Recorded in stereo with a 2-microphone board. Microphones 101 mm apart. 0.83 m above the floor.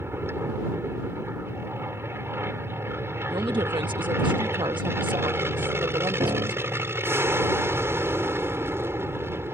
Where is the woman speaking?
50° right (ahead or behind).